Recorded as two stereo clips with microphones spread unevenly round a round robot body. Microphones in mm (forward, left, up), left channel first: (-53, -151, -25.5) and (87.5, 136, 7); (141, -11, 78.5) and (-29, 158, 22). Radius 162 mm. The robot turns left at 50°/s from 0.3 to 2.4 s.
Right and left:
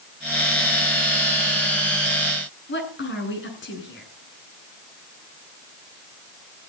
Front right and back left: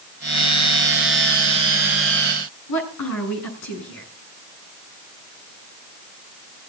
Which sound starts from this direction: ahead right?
A woman speaking, at 2.7 s.